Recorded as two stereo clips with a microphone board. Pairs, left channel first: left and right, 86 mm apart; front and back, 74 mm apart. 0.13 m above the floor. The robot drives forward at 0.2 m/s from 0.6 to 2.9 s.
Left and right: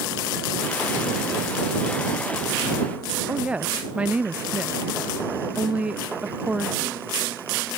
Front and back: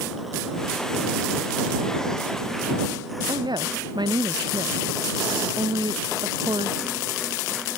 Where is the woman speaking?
165° right.